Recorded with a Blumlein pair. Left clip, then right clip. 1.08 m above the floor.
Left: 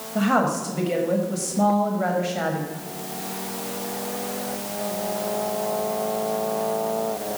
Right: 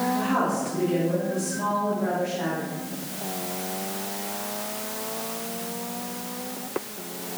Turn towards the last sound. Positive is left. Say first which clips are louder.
# left 3 dB
turn(degrees=50)